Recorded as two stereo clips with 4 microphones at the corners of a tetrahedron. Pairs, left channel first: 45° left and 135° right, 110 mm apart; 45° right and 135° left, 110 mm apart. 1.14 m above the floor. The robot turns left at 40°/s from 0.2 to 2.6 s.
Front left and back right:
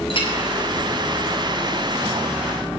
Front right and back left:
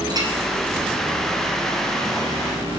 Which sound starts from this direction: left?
A clink, at 0.1 s.